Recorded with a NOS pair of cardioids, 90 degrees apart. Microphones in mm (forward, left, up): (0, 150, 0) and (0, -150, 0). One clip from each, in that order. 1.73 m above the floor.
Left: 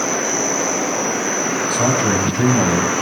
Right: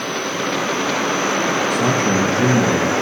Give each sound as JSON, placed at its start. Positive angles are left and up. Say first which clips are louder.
{"t": 1.7, "sound": "a man speaking", "louder": "even", "azimuth_deg": 55, "distance_m": 6.0}